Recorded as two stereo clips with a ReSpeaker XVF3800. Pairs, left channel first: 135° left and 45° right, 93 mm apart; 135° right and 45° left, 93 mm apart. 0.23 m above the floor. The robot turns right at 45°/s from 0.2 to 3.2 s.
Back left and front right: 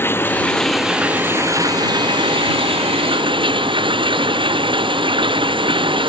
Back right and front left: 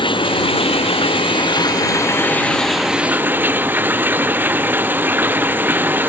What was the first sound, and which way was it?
Running water, 160° right.